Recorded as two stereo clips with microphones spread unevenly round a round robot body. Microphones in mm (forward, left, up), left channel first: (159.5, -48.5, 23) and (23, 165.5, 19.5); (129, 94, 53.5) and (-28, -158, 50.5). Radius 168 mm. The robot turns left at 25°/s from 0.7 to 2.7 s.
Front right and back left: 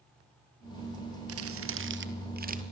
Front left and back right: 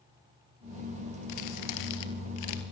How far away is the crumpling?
About 2.5 m.